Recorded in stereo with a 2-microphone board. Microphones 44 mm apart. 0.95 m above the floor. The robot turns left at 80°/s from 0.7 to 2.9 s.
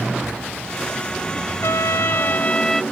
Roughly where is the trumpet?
Left.